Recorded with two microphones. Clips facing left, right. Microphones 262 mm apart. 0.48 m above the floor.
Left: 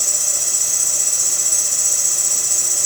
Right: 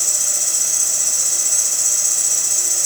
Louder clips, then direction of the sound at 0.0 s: Left 2 dB; 45° left (ahead or behind).